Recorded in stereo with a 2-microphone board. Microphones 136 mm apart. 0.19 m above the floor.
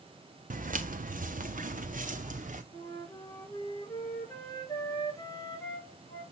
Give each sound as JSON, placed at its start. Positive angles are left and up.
{"t": 0.5, "sound": "footsteps", "side_deg": -80, "distance_m": 1.2}
{"t": 2.7, "sound": "a flute", "side_deg": 25, "distance_m": 3.5}